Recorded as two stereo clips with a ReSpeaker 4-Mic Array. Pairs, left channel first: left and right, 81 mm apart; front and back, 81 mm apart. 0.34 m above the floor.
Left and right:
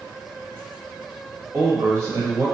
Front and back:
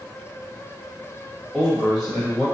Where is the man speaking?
95° right, 1.3 m.